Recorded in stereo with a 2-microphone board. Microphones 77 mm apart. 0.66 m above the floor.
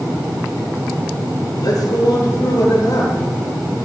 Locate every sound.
1.6 s a man speaking: 55° left (ahead or behind), 9.5 m